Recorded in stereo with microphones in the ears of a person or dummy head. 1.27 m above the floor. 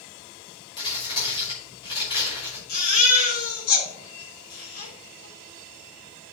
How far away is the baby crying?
About 3.5 m.